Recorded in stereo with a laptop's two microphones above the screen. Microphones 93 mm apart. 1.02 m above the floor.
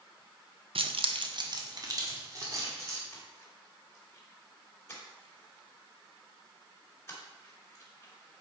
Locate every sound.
0.8 s keys jangling: 75° right (ahead or behind), 0.5 m; by 3.0 s 35° right (ahead or behind), 3 m
3.1 s a splash: 30° left (ahead or behind), 1.8 m